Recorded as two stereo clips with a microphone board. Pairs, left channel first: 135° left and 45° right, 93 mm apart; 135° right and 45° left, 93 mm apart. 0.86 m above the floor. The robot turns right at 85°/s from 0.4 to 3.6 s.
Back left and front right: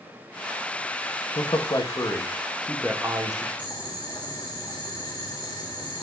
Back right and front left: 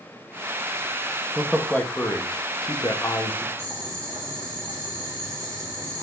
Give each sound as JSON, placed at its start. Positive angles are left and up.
{"t": 1.4, "sound": "a man speaking", "azimuth_deg": 120, "distance_m": 1.2}
{"t": 3.6, "sound": "boiling", "azimuth_deg": 95, "distance_m": 3.0}